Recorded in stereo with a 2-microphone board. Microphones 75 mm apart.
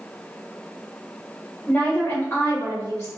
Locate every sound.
1.7 s a woman speaking: 25° left (ahead or behind), 1.7 m; by 3.1 s 50° left (ahead or behind), 2 m